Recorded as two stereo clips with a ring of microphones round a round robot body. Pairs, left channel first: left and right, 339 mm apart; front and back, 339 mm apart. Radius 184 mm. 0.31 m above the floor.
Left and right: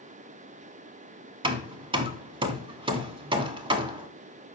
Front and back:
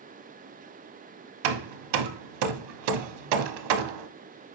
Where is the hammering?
165° right, 0.6 m.